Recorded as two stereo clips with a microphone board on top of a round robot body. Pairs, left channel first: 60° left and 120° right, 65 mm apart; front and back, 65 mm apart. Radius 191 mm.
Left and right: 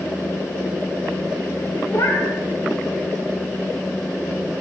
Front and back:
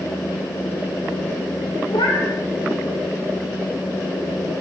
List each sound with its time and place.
1.9 s a cat meowing: 10° left, 1.3 m